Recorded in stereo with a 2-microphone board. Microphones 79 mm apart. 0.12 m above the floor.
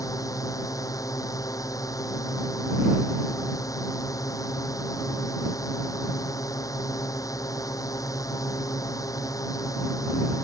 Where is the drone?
45° left (ahead or behind).